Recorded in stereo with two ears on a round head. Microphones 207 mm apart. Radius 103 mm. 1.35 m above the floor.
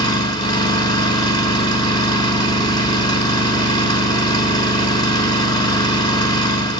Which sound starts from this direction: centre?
An engine running, at 0.0 s.